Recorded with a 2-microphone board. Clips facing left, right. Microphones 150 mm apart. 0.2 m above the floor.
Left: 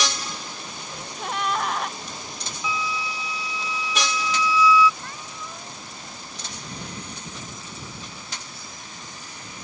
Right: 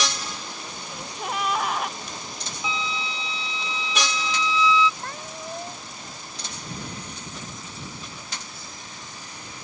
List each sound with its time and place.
0.9 s a gasp: 5° right (ahead or behind)
2.6 s a flute: 25° right (ahead or behind)
5.0 s a cat meowing: 50° right (ahead or behind)